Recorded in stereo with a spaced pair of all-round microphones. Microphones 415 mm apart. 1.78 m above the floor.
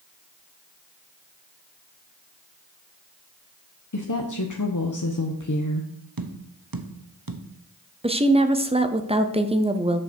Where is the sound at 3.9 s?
50° left (ahead or behind), 0.9 m.